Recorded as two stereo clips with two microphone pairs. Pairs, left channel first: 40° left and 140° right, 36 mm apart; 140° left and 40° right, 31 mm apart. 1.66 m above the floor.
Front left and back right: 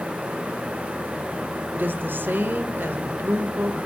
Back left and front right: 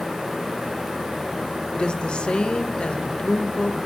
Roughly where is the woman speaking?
Behind.